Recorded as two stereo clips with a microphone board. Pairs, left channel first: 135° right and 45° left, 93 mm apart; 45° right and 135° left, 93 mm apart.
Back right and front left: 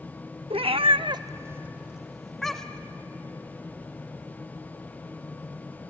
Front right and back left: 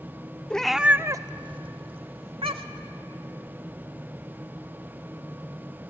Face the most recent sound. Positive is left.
turn(degrees=145)